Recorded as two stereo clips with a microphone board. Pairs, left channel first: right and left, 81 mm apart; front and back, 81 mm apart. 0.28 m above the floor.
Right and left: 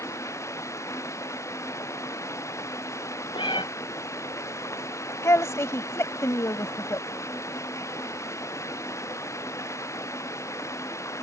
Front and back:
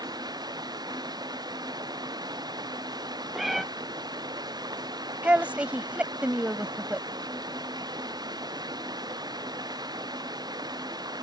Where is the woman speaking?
115° right.